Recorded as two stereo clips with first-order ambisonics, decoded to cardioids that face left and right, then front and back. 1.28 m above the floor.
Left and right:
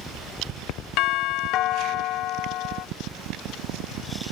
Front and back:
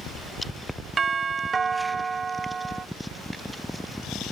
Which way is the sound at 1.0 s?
110° left.